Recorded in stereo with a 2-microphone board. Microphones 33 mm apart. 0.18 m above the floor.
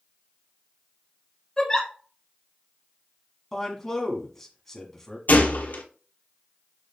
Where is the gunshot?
70° left (ahead or behind), 0.8 m.